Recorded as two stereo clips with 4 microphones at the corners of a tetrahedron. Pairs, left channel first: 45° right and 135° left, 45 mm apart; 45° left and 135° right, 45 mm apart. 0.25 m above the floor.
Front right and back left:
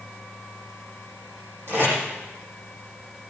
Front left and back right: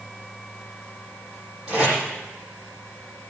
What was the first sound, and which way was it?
Tape being pulled, 155° left.